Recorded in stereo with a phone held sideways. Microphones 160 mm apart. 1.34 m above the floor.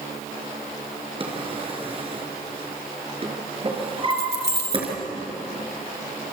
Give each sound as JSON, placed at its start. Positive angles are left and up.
{"t": 1.2, "sound": "a drawer", "side_deg": -35, "distance_m": 4.5}
{"t": 4.1, "sound": "keys jangling", "side_deg": 85, "distance_m": 4.0}